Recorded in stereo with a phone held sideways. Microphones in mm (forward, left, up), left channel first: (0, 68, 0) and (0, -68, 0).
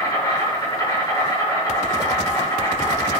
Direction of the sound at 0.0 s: 25° left (ahead or behind).